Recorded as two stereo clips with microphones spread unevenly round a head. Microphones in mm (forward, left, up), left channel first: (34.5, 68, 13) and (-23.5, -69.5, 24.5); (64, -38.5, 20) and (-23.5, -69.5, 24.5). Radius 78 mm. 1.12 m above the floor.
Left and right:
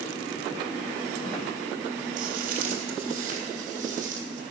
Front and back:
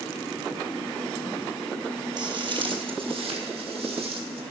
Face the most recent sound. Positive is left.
turn(degrees=-155)